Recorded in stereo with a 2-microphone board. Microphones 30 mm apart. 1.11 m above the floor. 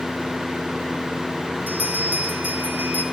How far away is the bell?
About 4 m.